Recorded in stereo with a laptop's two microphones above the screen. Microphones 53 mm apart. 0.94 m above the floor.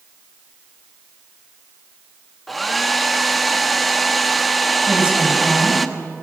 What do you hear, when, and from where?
2.5 s a hair dryer: centre (ahead or behind), 1.2 m
4.9 s a woman speaking: 20° right (ahead or behind), 7 m